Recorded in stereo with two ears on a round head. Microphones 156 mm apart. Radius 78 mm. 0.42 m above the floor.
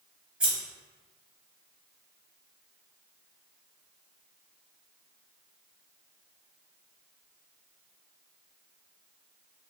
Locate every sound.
0.4 s scissors: 5° right (ahead or behind), 1.1 m